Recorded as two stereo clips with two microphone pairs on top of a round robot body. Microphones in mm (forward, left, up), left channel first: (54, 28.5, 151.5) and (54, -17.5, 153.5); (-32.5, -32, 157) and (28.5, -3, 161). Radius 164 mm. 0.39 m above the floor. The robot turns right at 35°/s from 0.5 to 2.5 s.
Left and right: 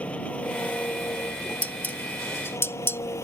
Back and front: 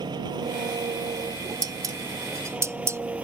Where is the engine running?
30° left; by 3.2 s 100° left.